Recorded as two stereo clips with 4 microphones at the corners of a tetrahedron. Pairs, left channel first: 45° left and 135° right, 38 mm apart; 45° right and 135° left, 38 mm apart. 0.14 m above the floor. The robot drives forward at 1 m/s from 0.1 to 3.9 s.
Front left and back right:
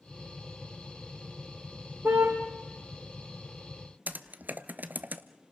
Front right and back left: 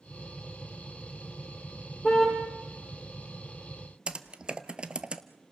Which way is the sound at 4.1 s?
160° right.